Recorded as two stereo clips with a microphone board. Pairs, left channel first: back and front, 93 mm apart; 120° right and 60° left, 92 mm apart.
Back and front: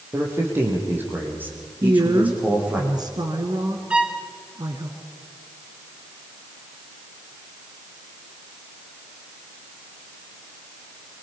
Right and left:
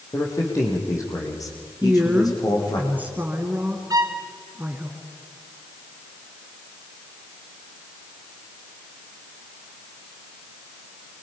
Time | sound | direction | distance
0.1 | a man speaking | 60° right | 5.5 m
1.8 | a woman speaking | 5° right | 2 m
3.9 | a violin | 75° left | 1.7 m